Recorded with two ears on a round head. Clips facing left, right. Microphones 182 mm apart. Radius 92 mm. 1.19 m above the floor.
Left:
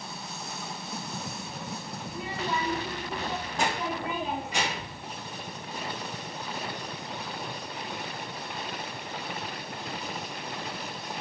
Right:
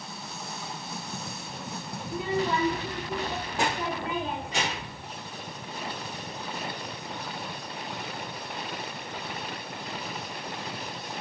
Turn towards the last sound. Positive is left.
turn(degrees=15)  # may be behind; listen again after turning